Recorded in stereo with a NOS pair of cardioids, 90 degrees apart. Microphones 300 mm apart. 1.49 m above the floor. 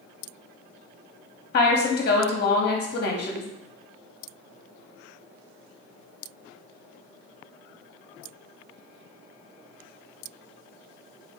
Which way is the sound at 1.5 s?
35° left.